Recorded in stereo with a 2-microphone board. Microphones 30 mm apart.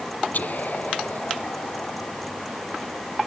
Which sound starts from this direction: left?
Whispering, at 0.3 s.